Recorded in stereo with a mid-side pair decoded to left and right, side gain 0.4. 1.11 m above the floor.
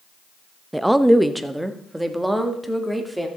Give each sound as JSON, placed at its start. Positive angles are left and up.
{"t": 0.7, "sound": "a woman speaking", "azimuth_deg": -10, "distance_m": 0.7}